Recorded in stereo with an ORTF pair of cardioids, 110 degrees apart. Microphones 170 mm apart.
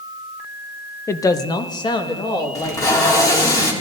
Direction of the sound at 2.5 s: 20° left.